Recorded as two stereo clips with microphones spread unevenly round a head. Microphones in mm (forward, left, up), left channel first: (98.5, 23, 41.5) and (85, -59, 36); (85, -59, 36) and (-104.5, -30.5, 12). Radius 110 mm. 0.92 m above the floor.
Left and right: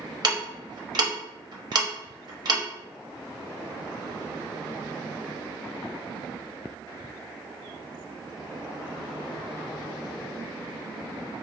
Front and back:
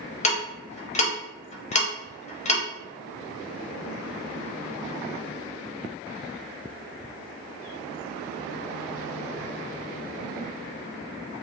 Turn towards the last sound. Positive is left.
turn(degrees=-65)